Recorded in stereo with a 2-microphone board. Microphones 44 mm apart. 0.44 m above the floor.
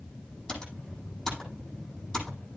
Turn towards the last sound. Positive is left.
turn(degrees=15)  # may be behind; listen again after turning